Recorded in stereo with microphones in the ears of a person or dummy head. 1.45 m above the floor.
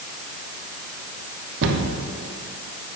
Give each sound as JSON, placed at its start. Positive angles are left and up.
{"t": 1.6, "sound": "a cupboard door", "side_deg": -55, "distance_m": 0.9}